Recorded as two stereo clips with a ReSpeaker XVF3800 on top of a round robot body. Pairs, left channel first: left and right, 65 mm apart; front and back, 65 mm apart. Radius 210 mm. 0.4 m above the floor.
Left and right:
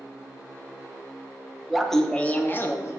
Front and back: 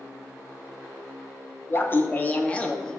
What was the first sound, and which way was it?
Laughter, 5° right.